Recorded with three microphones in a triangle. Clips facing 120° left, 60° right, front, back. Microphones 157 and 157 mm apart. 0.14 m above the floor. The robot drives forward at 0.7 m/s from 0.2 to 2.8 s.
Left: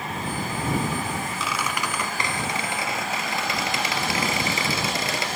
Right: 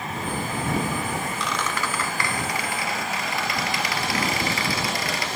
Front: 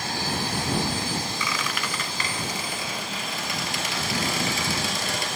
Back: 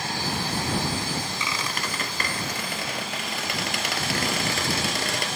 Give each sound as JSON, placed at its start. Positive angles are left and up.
{"t": 1.4, "sound": "a squeak", "azimuth_deg": -155, "distance_m": 0.5}